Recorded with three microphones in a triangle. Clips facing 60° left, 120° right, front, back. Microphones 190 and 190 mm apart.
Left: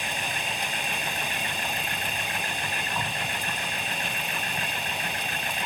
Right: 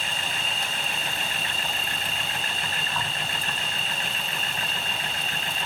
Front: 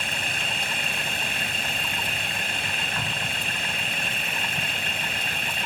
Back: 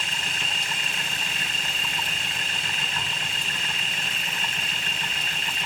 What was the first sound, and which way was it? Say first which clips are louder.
An insect: left 1 dB, front 3 dB; 10° right.